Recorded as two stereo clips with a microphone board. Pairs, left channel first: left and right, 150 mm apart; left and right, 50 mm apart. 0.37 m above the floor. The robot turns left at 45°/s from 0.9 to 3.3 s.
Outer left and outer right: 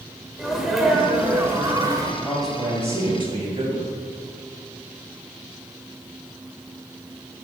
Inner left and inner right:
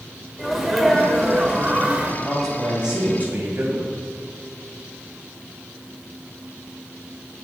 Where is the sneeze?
5° right, 1.4 m; by 2.1 s 60° right, 1.4 m.